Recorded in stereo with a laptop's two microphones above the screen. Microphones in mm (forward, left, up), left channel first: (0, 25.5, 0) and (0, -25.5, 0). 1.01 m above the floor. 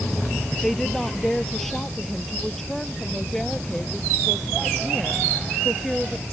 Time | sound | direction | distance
0.6 | a woman speaking | 5° left (ahead or behind) | ?